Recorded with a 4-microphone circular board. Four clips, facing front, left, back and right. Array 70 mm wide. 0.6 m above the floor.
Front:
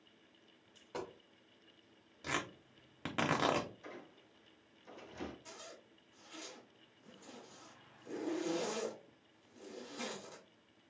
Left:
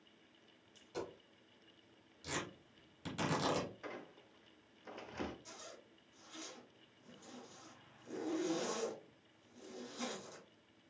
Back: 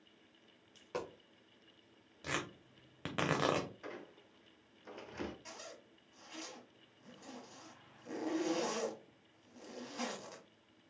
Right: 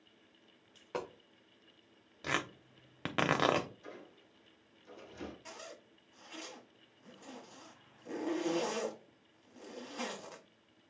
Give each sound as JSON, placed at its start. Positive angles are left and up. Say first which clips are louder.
{"t": 0.8, "sound": "a dropped coin", "louder": "right 5 dB, back 2 dB", "azimuth_deg": -110, "distance_m": 0.8}
{"t": 2.2, "sound": "tearing paper", "louder": "right 7 dB, front 1 dB", "azimuth_deg": -90, "distance_m": 0.7}
{"t": 3.8, "sound": "a squeak", "louder": "left 2 dB, back 3 dB", "azimuth_deg": 135, "distance_m": 0.9}
{"t": 5.5, "sound": "a zipper", "louder": "right 5 dB, back 2 dB", "azimuth_deg": -120, "distance_m": 1.3}